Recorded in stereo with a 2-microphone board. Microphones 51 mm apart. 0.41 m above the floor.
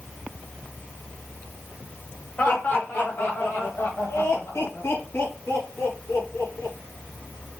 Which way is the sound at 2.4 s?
30° left (ahead or behind).